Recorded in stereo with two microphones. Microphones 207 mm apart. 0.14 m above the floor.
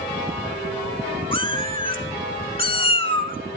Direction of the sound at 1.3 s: 25° left (ahead or behind).